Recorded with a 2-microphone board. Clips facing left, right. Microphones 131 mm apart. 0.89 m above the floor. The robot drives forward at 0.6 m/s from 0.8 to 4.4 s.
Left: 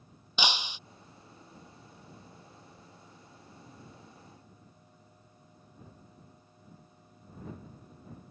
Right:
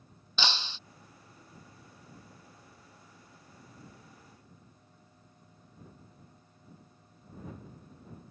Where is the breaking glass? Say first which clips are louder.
Left 2 dB; 15° left (ahead or behind).